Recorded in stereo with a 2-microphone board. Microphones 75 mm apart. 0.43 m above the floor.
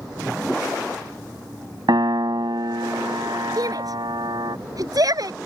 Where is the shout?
55° right (ahead or behind).